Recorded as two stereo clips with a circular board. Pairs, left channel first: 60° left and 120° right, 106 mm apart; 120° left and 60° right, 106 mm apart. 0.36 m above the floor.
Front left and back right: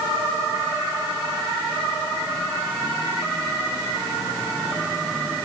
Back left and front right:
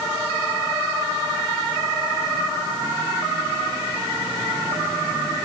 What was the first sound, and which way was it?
Only background noise.